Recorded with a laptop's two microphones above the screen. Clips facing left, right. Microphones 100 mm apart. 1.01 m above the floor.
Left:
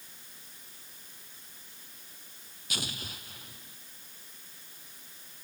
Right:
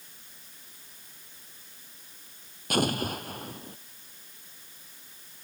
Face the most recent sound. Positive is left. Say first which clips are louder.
# right 14 dB
turn(degrees=-50)  # may be behind; listen again after turning